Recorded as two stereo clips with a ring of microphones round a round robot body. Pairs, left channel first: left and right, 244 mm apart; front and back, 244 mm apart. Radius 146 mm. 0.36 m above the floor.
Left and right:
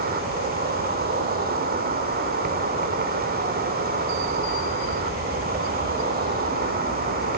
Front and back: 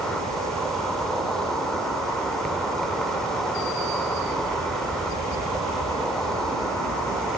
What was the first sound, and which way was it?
An insect, 85° right.